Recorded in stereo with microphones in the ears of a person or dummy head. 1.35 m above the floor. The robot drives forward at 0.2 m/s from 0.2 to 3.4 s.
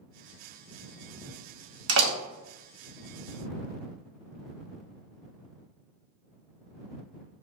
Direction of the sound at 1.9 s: 75° right (ahead or behind).